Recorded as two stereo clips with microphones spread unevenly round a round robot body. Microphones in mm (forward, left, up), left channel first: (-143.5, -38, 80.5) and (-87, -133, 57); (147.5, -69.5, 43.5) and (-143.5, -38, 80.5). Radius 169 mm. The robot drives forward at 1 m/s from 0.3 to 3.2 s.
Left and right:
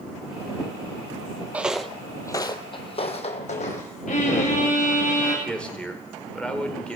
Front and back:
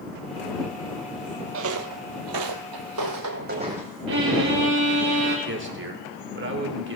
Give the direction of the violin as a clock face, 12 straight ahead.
8 o'clock.